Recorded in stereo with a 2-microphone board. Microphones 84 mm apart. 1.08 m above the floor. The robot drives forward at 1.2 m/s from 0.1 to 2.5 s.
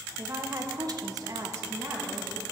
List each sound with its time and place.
0.2 s a woman speaking: 30° right (ahead or behind), 1.3 m; by 2.4 s 20° right (ahead or behind), 1.9 m